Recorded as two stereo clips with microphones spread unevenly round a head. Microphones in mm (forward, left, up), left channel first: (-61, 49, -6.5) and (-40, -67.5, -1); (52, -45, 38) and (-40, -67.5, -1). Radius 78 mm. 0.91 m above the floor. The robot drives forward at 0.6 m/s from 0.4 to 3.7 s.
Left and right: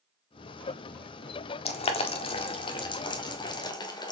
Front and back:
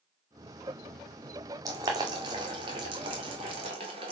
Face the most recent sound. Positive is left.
turn(degrees=155)